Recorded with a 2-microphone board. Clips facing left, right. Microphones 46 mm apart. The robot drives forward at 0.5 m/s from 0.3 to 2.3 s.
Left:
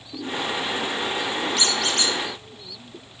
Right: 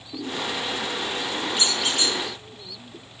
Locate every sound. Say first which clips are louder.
1.6 s a squeak: even; 15° right (ahead or behind), 1.2 m